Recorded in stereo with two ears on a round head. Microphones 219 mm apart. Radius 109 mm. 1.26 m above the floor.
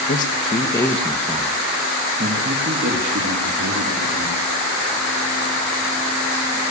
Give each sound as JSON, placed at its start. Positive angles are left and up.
{"t": 0.1, "sound": "a man speaking", "side_deg": 40, "distance_m": 1.5}